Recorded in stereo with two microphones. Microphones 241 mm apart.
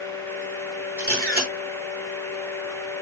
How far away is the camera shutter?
About 6 m.